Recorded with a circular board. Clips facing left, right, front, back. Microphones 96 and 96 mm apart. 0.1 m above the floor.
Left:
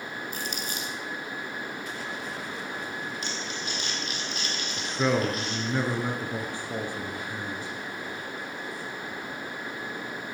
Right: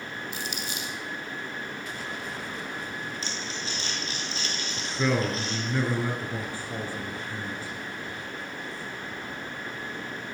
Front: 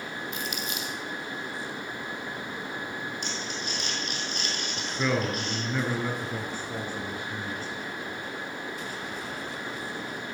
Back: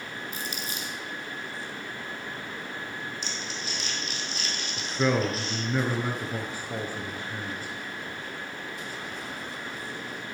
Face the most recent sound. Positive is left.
turn(degrees=120)